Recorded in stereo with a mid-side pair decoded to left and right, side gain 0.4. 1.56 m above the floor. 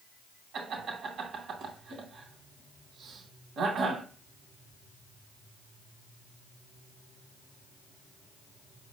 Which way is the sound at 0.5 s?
65° right.